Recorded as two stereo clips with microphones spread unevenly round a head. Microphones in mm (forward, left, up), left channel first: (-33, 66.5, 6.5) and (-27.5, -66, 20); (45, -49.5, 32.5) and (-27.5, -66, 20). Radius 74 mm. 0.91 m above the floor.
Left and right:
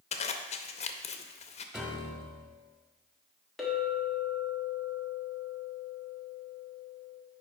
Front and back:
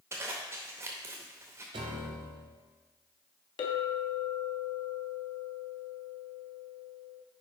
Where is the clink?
5° left, 1.2 m.